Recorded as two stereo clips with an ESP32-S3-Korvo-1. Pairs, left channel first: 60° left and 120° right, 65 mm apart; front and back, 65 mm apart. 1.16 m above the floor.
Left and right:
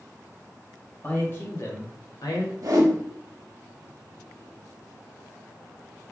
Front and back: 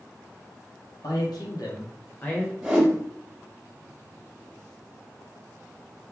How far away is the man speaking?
About 1.3 m.